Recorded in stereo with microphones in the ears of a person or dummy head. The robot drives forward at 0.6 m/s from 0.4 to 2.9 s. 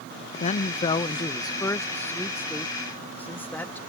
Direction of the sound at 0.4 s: 45° left (ahead or behind).